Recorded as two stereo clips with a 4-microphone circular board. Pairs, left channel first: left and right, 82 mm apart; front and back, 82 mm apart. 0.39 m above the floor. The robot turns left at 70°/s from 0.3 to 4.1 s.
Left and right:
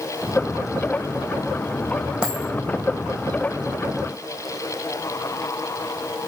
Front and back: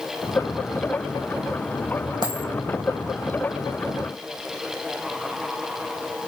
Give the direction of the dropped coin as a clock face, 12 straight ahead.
5 o'clock.